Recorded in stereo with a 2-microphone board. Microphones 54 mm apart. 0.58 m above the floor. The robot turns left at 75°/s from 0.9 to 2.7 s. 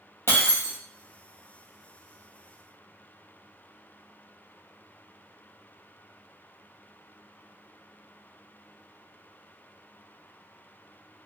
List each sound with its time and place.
0.3 s breaking glass: 50° left (ahead or behind), 1.9 m